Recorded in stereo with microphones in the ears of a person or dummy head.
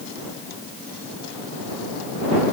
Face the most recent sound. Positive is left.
No sound to turn to.